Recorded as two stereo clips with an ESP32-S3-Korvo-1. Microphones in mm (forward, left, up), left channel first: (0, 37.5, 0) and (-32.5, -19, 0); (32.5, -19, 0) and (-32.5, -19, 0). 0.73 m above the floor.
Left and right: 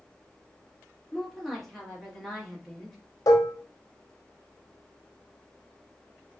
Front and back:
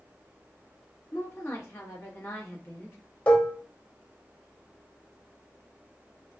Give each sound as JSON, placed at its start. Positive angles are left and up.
{"t": 1.1, "sound": "a woman speaking", "azimuth_deg": -25, "distance_m": 1.1}
{"t": 3.3, "sound": "dishes clattering", "azimuth_deg": 65, "distance_m": 0.6}